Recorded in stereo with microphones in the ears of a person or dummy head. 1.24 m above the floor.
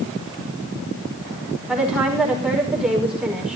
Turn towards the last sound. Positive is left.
turn(degrees=-5)  # may be behind; listen again after turning